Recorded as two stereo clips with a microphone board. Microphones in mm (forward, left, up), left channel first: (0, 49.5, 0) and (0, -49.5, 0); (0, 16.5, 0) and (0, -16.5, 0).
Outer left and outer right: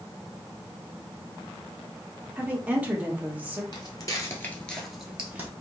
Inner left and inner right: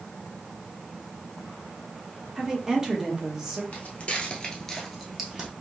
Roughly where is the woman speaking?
Centre.